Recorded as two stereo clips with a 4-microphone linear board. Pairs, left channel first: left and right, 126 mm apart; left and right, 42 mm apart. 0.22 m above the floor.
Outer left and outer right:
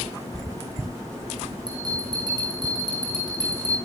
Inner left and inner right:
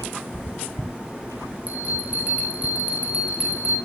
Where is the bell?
35° right (ahead or behind), 5 m.